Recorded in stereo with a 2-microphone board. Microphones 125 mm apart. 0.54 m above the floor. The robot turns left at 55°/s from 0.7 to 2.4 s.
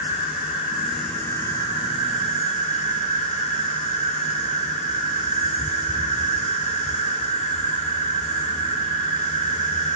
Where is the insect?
165° right, 7.5 m; by 9.9 s 100° left, 7.5 m.